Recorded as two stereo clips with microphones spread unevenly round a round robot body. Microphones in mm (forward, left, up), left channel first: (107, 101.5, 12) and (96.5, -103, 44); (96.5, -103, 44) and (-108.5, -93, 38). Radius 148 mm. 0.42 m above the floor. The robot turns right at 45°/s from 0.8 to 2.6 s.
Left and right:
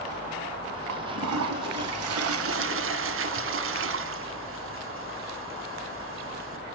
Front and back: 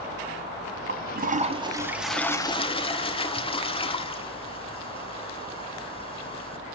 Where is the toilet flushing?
145° right, 1.4 m; by 6.7 s 70° right, 1.4 m.